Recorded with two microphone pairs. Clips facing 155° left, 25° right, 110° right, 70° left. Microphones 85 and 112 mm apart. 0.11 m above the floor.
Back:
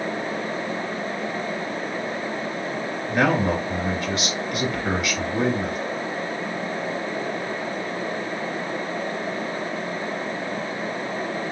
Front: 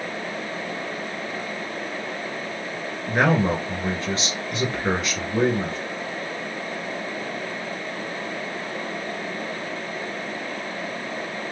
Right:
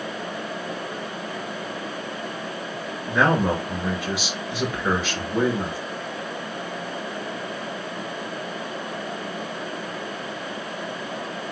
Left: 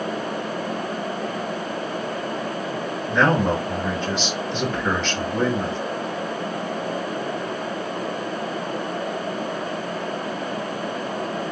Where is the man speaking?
40° right, 1.6 m.